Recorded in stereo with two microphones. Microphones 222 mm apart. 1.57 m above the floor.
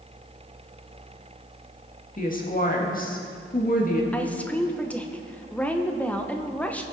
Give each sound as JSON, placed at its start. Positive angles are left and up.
{"t": 2.2, "sound": "a woman speaking", "side_deg": 40, "distance_m": 1.9}
{"t": 4.1, "sound": "a woman speaking", "side_deg": 5, "distance_m": 1.0}